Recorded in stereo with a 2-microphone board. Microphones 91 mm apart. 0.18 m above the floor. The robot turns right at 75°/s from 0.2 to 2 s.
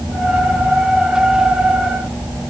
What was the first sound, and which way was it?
Only background noise.